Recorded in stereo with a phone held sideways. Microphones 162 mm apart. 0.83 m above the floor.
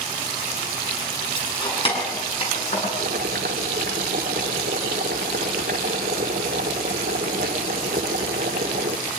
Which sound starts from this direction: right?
Boiling, at 3.0 s.